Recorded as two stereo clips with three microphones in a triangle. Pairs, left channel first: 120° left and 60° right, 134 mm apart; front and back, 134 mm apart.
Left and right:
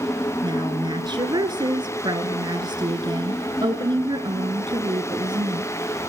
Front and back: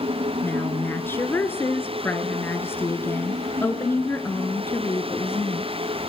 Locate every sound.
0.4 s a woman speaking: 60° right, 1.5 m